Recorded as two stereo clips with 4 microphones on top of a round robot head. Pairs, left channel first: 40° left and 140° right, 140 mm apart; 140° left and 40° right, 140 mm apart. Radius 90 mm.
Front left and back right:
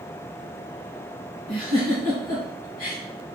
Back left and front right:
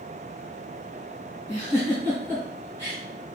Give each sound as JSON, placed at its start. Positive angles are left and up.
{"t": 1.5, "sound": "a giggle", "azimuth_deg": 70, "distance_m": 2.5}